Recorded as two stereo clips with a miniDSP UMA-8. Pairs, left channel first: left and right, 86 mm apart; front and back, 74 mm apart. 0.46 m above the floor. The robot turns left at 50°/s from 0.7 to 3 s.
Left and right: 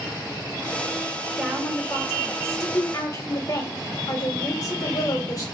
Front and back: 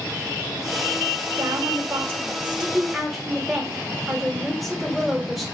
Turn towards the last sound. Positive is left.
turn(degrees=90)